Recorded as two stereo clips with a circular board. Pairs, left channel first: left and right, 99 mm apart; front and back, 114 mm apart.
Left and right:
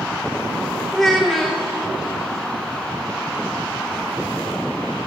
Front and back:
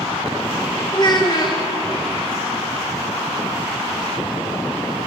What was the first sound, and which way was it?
A child speaking, 5° left.